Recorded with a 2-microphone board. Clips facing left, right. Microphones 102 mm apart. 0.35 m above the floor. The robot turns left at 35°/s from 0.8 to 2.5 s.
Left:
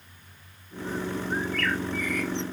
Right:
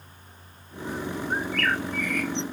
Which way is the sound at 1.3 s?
65° right.